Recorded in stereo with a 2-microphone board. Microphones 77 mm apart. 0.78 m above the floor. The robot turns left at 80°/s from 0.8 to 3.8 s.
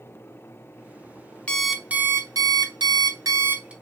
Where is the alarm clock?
15° left, 0.6 m; by 3.7 s 165° right, 0.6 m.